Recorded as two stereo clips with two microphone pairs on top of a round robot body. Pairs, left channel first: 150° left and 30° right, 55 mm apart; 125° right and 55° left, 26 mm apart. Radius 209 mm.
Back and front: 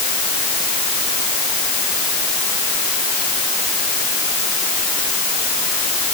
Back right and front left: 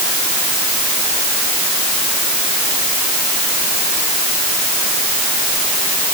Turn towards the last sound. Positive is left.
No sound to turn to.